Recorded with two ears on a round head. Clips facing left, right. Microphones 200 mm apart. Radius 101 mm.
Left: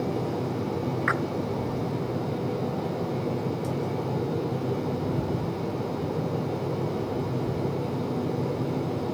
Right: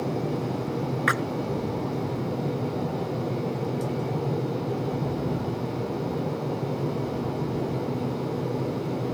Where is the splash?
45° right (ahead or behind).